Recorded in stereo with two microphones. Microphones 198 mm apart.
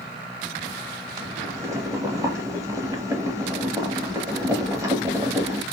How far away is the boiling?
About 1.1 m.